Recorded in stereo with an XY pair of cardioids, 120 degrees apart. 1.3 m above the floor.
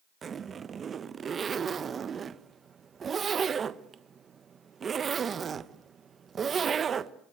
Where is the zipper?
35° right, 1.2 m.